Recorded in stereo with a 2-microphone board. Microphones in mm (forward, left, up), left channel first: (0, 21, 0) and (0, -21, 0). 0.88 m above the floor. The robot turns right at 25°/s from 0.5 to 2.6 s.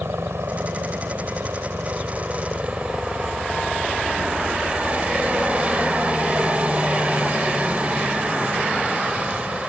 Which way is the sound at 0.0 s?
85° right.